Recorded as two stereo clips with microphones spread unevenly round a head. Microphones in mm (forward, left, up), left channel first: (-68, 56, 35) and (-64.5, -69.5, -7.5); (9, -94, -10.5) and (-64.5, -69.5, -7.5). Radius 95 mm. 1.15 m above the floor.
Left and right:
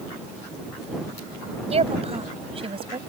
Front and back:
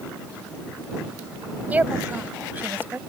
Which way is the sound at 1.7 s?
130° right.